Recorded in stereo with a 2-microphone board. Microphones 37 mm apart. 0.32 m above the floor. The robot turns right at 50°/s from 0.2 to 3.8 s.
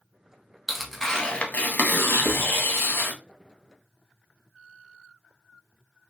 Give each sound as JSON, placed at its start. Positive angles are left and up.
{"t": 0.7, "sound": "tearing paper", "azimuth_deg": -5, "distance_m": 0.7}
{"t": 2.2, "sound": "writing", "side_deg": 70, "distance_m": 1.0}